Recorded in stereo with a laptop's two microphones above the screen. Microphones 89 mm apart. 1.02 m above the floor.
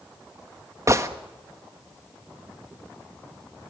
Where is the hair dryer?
I don't hear a hair dryer.